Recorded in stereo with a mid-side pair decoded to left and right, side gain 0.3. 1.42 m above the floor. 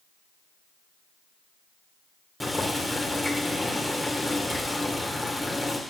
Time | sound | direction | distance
2.4 | boiling | 20° left | 1.6 m